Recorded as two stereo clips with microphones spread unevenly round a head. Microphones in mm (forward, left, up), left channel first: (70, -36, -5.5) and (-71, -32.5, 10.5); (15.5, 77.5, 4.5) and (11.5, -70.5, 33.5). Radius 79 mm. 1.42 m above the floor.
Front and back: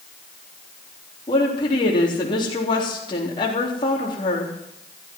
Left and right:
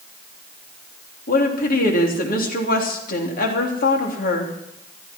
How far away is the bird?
No bird in this recording.